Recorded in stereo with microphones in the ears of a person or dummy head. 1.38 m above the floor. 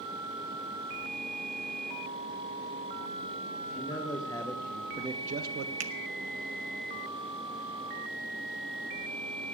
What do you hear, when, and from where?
3.6 s a man speaking: 35° left (ahead or behind), 1.9 m; by 5.7 s 70° right (ahead or behind), 0.9 m
5.8 s a finger snap: 45° right (ahead or behind), 0.9 m